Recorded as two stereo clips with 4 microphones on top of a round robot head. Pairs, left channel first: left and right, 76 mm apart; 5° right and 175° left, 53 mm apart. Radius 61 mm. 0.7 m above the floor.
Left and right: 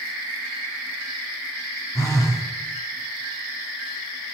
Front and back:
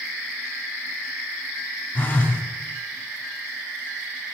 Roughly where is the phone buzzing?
Ahead left.